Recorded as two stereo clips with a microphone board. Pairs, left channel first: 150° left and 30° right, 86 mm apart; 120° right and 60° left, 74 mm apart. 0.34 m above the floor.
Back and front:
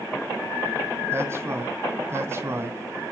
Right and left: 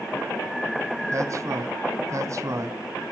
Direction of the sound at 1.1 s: 25° left.